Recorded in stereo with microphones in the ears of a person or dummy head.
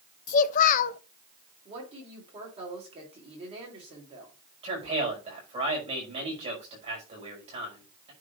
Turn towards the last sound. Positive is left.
turn(degrees=-35)  # may be behind; listen again after turning